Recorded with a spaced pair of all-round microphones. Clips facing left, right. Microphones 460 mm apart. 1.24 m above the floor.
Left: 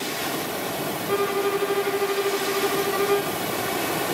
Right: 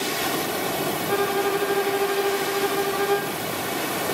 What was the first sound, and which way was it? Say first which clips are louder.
A violin: left 1 dB; 5° right (ahead or behind).